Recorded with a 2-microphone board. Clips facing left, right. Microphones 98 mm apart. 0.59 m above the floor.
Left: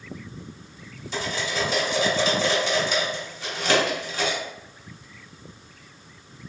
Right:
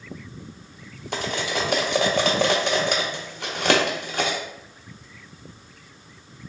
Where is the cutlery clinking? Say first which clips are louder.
Right 2 dB; 60° right (ahead or behind), 0.5 m.